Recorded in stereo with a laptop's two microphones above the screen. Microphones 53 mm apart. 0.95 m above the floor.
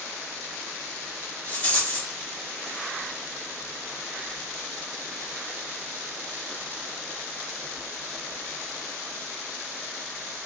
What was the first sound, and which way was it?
A rattle, 25° left (ahead or behind).